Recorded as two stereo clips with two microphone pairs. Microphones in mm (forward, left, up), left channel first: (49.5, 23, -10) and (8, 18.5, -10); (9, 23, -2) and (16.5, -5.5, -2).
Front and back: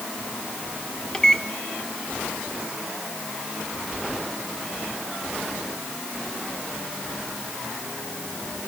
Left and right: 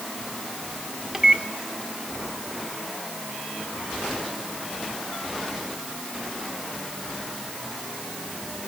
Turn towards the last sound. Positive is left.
turn(degrees=-40)